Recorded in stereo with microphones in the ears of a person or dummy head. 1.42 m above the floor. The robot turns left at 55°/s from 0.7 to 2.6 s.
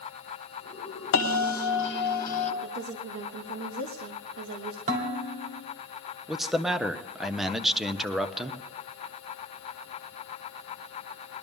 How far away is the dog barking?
No dog barking in this recording.